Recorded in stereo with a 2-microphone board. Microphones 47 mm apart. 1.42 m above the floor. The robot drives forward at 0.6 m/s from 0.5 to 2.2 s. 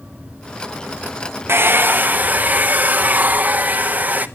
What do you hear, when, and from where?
1.5 s a hair dryer: 55° right (ahead or behind), 0.6 m; by 4.3 s 35° right (ahead or behind), 0.9 m